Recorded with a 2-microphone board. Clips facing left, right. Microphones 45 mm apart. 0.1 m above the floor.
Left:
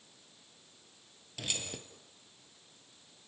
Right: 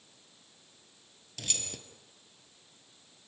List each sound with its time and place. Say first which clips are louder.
1.4 s keys jangling: left 1 dB; 10° left (ahead or behind), 1.6 m